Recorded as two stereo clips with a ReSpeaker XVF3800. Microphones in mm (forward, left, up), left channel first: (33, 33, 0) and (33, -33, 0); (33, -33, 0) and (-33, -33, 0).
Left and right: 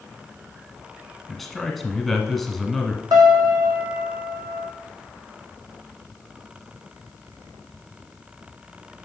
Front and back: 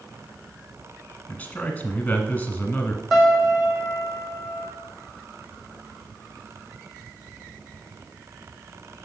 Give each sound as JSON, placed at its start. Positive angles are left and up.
{"t": 1.3, "sound": "a man speaking", "azimuth_deg": 5, "distance_m": 1.1}
{"t": 3.1, "sound": "a piano", "azimuth_deg": -90, "distance_m": 1.8}